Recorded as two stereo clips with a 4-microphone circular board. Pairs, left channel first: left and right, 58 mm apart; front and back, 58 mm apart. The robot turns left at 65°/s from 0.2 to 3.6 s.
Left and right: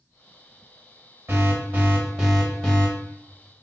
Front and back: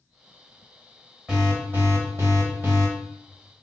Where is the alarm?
105° right, 1.5 m; by 2.9 s 150° left, 1.5 m.